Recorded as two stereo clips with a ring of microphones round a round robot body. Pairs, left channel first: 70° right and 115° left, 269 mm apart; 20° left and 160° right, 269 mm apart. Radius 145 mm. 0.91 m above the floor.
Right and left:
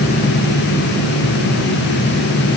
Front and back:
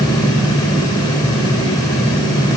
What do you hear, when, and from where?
Only background noise.